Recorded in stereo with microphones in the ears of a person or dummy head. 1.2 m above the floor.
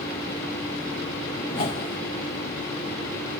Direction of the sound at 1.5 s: 25° left (ahead or behind).